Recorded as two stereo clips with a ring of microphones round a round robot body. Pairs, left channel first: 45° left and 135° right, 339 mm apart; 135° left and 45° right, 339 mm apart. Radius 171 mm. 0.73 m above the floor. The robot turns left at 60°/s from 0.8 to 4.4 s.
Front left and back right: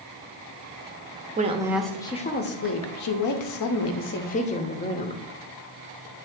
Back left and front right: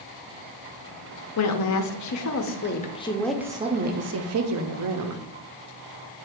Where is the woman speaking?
165° left, 0.9 m; by 5.2 s 20° right, 0.9 m.